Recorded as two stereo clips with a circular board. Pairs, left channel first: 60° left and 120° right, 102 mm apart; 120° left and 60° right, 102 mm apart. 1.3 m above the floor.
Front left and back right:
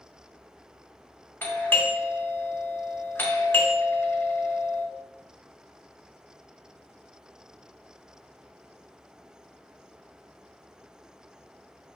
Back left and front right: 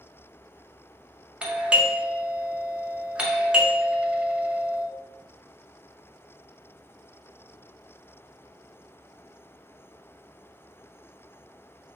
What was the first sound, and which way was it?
A doorbell, 10° left.